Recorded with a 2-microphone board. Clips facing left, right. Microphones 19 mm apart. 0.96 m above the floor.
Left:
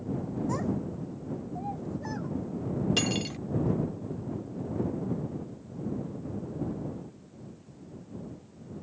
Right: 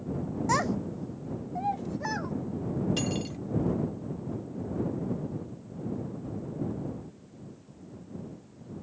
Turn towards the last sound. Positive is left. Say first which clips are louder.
# left 3 dB
turn(degrees=25)  # may be behind; listen again after turning